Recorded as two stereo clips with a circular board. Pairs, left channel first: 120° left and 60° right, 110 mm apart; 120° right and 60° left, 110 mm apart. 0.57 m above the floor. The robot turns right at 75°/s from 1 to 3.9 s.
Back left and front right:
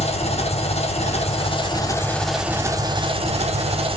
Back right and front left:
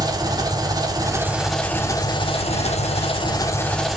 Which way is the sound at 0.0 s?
115° left.